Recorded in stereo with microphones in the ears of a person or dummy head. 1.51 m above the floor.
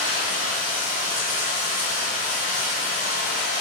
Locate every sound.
0.0 s running water: 5° right (ahead or behind), 1.9 m